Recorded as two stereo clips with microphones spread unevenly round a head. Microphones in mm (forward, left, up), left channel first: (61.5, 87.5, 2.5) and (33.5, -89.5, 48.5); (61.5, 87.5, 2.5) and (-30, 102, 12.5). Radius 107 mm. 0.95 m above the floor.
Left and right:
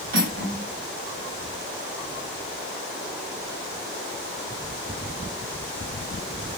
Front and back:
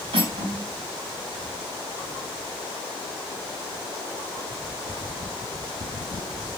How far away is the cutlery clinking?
About 2.5 m.